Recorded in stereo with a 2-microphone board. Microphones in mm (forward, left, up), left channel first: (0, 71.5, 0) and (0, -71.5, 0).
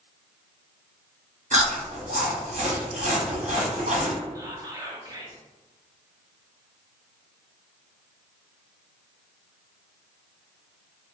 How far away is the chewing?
About 0.7 m.